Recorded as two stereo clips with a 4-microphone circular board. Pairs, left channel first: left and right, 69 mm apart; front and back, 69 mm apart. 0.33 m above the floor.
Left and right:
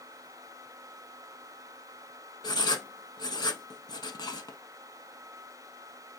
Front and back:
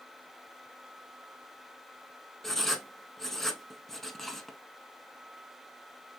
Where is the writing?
85° left, 0.6 m.